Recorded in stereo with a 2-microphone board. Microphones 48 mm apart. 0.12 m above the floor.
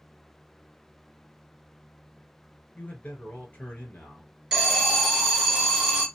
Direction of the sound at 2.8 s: 35° left (ahead or behind).